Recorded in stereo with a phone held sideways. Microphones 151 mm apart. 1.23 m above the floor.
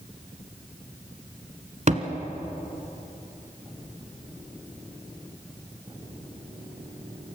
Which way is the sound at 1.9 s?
50° right (ahead or behind).